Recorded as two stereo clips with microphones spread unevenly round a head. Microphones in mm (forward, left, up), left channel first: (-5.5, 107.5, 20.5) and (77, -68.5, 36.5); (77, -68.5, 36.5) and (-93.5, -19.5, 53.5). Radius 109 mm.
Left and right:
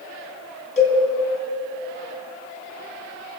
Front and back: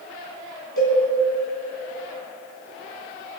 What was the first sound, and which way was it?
A cowbell, 60° left.